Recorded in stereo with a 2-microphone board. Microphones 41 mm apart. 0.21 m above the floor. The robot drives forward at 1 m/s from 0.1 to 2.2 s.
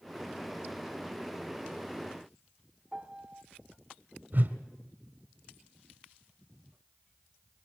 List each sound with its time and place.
2.9 s a piano: 20° right (ahead or behind), 1.4 m
4.3 s a whoosh: 50° right (ahead or behind), 1.6 m